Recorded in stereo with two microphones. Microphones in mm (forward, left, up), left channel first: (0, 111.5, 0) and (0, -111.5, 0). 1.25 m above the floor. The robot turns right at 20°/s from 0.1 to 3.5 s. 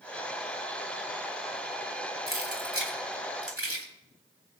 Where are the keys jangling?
70° right (ahead or behind), 3 m; by 3.9 s 85° right, 3 m.